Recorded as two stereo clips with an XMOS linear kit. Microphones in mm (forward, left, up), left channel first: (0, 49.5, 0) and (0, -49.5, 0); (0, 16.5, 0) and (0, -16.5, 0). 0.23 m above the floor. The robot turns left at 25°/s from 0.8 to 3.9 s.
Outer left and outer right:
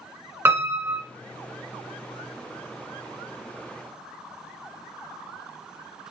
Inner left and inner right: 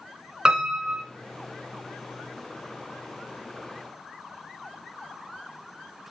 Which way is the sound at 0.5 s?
20° right (ahead or behind).